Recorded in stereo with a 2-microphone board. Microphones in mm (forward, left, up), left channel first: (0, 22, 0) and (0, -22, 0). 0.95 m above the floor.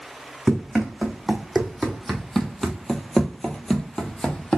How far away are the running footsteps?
About 2.5 m.